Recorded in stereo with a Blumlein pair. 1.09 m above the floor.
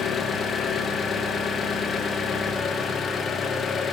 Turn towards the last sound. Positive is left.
turn(degrees=20)